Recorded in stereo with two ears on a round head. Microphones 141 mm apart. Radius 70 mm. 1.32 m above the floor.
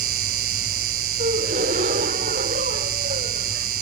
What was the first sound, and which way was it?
An insect, 65° right (ahead or behind).